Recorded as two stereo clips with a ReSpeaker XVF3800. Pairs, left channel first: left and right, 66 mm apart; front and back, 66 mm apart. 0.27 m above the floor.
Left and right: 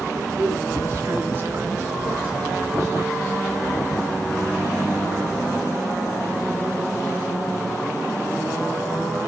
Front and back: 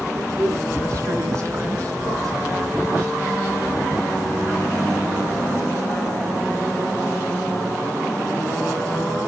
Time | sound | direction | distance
0.1 | a man speaking | 130° right | 3.5 m